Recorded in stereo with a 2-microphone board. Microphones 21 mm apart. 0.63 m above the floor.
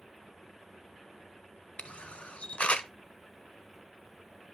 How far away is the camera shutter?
About 0.7 m.